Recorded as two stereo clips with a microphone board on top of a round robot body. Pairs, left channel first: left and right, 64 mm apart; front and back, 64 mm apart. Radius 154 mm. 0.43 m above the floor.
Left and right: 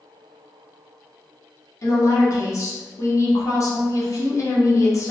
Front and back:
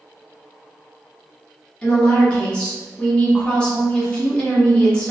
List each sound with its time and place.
1.8 s a woman speaking: 75° left, 1.4 m